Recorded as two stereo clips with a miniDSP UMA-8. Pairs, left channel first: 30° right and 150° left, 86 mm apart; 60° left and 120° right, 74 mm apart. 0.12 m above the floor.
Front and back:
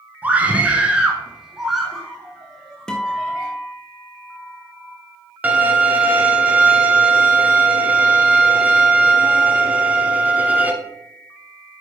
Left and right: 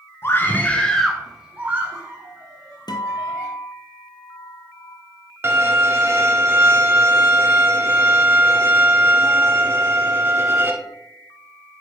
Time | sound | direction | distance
0.2 | a scream | 85° left | 1.8 m
2.9 | a guitar | 50° left | 1.1 m
5.4 | a violin | 150° right | 1.1 m